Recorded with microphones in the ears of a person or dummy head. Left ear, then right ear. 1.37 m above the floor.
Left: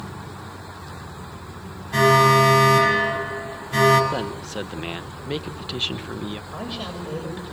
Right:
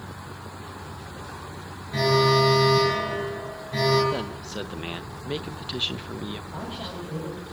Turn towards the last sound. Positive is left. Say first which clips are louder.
# left 3 dB
turn(degrees=55)  # may be behind; listen again after turning